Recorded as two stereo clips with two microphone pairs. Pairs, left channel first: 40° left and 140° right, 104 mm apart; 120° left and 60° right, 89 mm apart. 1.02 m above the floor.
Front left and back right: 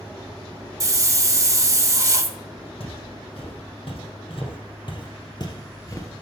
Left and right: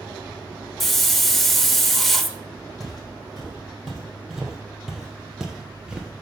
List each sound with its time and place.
0.8 s a hiss: 155° right, 0.8 m
2.8 s footsteps: 25° left, 3 m; by 6.2 s 5° left, 1.1 m